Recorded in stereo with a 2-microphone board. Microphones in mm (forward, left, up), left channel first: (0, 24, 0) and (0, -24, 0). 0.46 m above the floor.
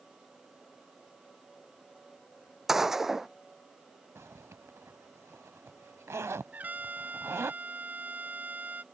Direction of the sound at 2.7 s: 10° right (ahead or behind).